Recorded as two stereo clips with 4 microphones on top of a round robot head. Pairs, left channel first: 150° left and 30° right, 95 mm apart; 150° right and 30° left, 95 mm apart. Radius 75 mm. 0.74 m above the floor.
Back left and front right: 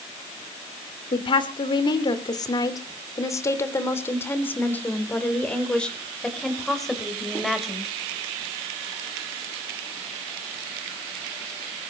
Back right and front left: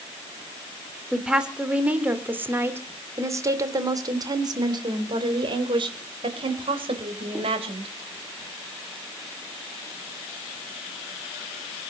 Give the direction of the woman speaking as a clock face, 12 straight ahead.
8 o'clock.